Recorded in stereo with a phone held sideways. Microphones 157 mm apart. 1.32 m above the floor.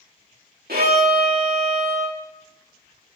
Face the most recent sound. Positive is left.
turn(degrees=-75)  # may be behind; listen again after turning